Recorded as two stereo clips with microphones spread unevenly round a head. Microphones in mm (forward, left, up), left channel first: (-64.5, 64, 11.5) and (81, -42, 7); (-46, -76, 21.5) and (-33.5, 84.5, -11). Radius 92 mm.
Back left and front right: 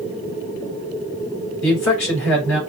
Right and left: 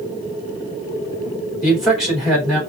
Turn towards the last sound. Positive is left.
turn(degrees=170)